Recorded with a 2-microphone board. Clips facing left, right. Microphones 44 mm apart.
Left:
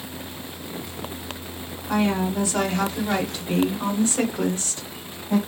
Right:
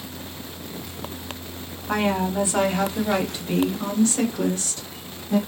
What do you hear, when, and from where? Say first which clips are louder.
1.9 s a woman speaking: even; 30° right (ahead or behind), 1.4 m; by 5.4 s 40° left (ahead or behind), 1.4 m